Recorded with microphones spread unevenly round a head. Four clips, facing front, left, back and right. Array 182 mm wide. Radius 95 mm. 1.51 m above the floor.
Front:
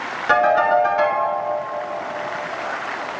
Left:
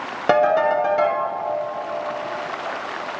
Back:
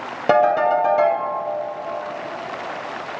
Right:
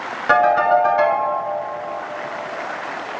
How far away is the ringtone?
About 3 m.